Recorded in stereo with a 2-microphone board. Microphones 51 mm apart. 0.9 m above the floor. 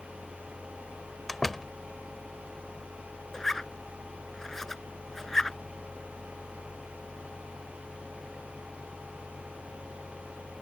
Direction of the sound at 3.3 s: 10° left (ahead or behind).